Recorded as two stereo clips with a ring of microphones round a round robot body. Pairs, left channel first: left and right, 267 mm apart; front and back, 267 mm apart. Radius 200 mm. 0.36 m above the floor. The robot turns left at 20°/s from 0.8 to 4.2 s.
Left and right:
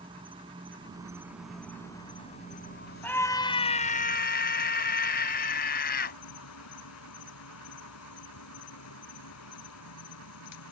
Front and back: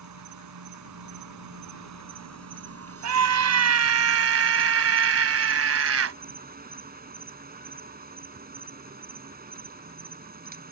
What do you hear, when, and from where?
0.0 s an insect: 165° right; by 10.7 s 125° left
3.0 s a scream: 175° left; by 6.2 s 150° left